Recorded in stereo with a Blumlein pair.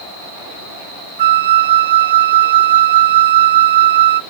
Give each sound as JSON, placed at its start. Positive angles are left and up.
{"t": 1.2, "sound": "a flute", "azimuth_deg": -60, "distance_m": 0.5}